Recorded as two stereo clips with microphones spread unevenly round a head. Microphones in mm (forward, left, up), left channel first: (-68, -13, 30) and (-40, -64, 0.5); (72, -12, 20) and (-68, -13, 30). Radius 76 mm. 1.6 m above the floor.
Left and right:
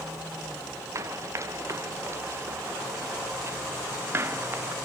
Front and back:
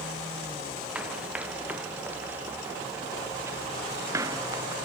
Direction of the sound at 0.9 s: 100° right.